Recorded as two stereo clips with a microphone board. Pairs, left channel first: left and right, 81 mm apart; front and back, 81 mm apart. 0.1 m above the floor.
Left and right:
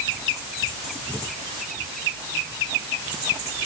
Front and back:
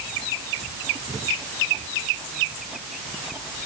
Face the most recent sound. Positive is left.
No sound to turn to.